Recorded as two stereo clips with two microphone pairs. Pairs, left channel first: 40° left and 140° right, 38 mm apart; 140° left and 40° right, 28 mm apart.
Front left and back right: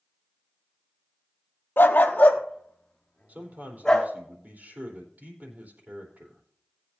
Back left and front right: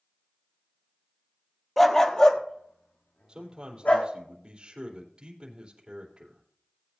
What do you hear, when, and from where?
1.8 s a dog barking: 55° left, 1.1 m; by 4.1 s 115° left, 3 m
3.3 s a man speaking: 100° right, 3.5 m